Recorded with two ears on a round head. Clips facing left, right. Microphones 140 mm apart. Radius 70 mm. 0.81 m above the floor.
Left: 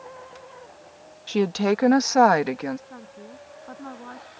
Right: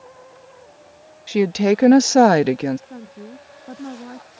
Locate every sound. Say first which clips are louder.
1.3 s a woman speaking: right 5 dB; 10° right (ahead or behind); by 2.8 s 30° right (ahead or behind)
2.9 s a woman speaking: right 5 dB; 30° right (ahead or behind)